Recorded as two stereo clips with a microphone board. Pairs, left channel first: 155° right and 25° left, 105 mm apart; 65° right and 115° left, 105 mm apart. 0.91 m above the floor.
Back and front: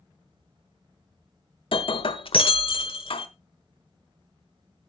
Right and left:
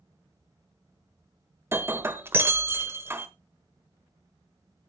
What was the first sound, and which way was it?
Breaking glass, straight behind.